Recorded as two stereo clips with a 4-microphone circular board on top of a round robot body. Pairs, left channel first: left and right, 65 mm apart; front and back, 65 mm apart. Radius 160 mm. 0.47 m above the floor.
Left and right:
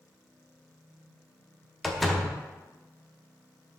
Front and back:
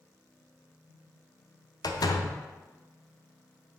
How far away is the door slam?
About 0.9 m.